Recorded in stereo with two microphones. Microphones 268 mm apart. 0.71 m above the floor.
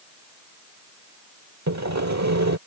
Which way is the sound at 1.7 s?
90° right.